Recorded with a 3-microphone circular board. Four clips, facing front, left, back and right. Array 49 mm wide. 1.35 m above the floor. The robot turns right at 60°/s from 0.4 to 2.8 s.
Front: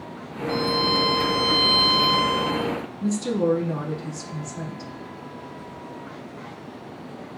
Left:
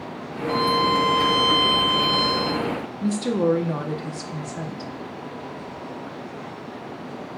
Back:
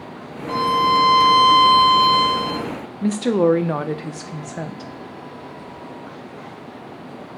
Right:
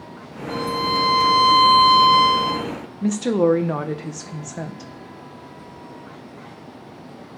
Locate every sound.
0.5 s a violin: 150° left, 0.6 m; by 2.7 s 80° right, 0.6 m
3.0 s a woman speaking: 155° right, 0.5 m